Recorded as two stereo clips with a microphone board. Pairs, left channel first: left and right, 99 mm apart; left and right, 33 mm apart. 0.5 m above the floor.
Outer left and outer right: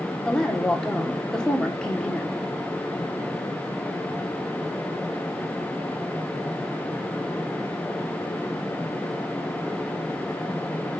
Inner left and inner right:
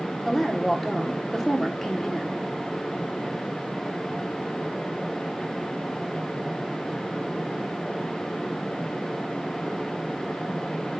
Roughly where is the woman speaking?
Centre.